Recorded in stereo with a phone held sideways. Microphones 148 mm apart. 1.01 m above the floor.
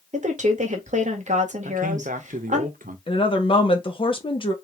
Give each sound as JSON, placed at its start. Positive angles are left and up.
{"t": 0.1, "sound": "a woman speaking", "side_deg": -55, "distance_m": 1.4}
{"t": 1.6, "sound": "a man speaking", "side_deg": -70, "distance_m": 1.0}
{"t": 3.1, "sound": "a woman speaking", "side_deg": 35, "distance_m": 1.1}